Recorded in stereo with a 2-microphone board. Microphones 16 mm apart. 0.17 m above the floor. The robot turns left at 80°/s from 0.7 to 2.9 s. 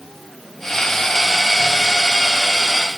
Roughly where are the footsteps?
No footsteps in this recording.